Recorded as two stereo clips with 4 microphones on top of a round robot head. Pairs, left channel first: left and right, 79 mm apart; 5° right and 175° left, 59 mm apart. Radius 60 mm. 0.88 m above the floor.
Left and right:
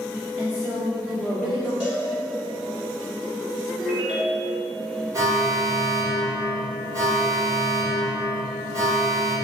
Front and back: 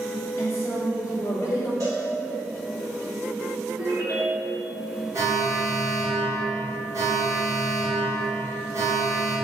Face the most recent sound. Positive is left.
turn(degrees=-135)